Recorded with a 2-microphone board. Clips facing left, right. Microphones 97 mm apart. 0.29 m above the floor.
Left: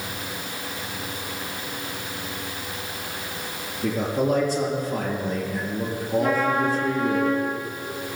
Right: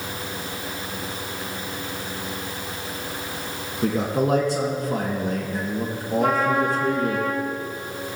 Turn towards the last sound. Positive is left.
turn(degrees=-65)  # may be behind; listen again after turning